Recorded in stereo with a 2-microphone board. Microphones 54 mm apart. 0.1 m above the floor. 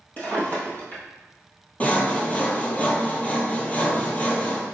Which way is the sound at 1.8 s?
25° left (ahead or behind).